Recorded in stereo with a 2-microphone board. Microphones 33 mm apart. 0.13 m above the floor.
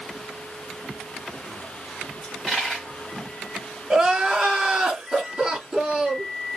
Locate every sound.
2.2 s a dropped coin: centre (ahead or behind), 3.5 m
3.9 s crying: 20° right (ahead or behind), 1.9 m